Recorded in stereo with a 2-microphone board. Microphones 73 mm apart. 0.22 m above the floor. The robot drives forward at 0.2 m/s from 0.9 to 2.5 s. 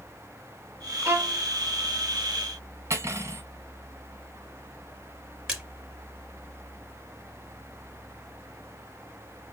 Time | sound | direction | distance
1.1 | a violin | 35° right (ahead or behind) | 0.8 m
2.9 | cutlery clinking | 40° right (ahead or behind) | 1.0 m
5.5 | a splash | 10° right (ahead or behind) | 1.0 m